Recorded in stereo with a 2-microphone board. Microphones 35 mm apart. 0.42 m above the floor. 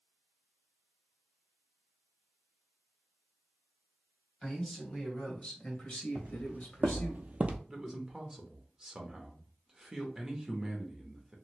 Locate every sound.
4.4 s a man speaking: 20° left (ahead or behind), 1.9 m; by 7.2 s 60° left (ahead or behind), 1.5 m
6.2 s footsteps: 60° right (ahead or behind), 1.2 m; by 7.6 s 45° right (ahead or behind), 0.5 m
7.7 s a man speaking: 15° right (ahead or behind), 0.8 m